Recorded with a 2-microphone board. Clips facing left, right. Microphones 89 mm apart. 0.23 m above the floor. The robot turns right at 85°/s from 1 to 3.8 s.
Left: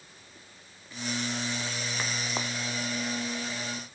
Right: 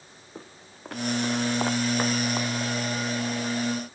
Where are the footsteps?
70° right (ahead or behind); by 2.5 s 10° left (ahead or behind).